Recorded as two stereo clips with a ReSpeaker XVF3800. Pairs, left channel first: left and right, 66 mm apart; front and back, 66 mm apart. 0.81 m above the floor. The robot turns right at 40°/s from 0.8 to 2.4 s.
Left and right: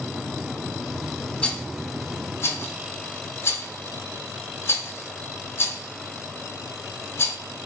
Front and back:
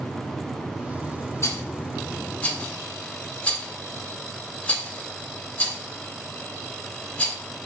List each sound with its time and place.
1.4 s a rattle: 20° left, 0.8 m; by 7.4 s 60° left, 0.8 m